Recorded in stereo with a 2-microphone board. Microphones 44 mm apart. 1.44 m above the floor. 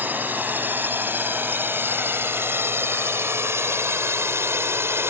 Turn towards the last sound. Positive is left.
turn(degrees=-70)  # may be behind; listen again after turning